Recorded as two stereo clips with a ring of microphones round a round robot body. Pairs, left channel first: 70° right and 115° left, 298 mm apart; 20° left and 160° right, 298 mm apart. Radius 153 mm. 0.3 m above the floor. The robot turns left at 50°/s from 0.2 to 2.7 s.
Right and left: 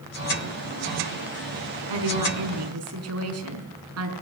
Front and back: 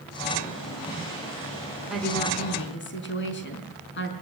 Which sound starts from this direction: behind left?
A woman speaking, at 1.9 s.